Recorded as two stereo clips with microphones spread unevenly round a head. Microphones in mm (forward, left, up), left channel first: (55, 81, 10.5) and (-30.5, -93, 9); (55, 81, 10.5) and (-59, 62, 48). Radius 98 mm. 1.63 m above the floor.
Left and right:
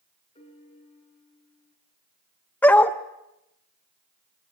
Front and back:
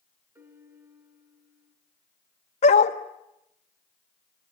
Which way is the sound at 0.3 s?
125° left.